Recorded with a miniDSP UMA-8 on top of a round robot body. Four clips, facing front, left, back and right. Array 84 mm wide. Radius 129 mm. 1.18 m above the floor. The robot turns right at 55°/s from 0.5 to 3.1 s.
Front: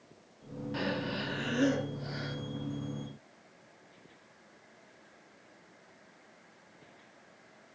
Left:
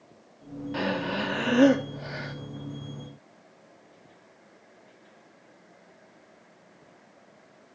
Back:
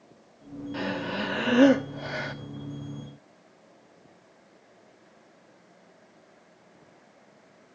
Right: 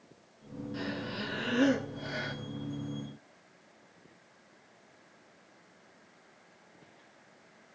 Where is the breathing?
95° left, 0.8 m; by 2.3 s 175° right, 0.8 m.